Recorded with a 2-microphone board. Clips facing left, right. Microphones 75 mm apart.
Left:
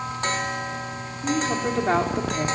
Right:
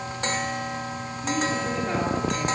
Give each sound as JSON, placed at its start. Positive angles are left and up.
{"t": 1.2, "sound": "a woman speaking", "side_deg": 60, "distance_m": 4.0}